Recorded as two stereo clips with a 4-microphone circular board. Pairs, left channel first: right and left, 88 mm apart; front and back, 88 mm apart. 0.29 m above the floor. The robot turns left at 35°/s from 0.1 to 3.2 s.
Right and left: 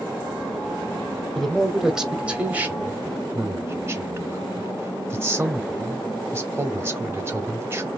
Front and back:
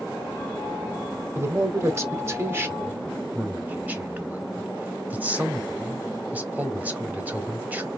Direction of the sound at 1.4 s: 170° right.